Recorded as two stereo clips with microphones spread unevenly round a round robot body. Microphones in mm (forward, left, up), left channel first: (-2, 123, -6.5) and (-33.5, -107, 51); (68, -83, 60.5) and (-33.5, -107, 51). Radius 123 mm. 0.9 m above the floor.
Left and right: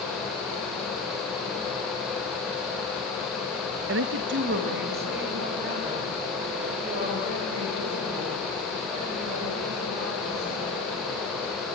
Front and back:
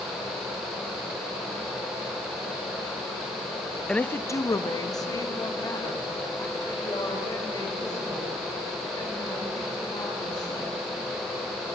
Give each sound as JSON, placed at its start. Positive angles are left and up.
{"t": 3.9, "sound": "a woman speaking", "azimuth_deg": -75, "distance_m": 0.6}